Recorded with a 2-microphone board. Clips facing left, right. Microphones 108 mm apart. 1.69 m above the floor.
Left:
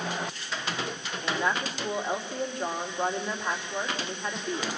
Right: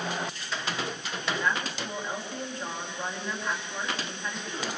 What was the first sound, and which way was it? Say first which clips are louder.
A woman speaking: left 1 dB; 20° left (ahead or behind).